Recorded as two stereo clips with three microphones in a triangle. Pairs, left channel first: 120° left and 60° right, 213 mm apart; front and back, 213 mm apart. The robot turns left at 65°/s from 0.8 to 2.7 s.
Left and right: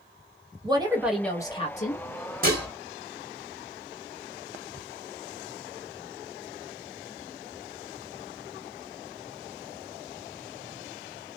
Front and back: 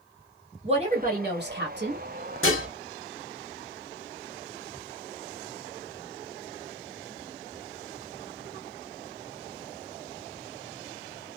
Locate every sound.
0.6 s a woman speaking: 125° right, 1.2 m; by 2.0 s 155° left, 1.2 m
2.4 s dishes clattering: 15° right, 1.0 m; by 2.7 s 30° right, 1.0 m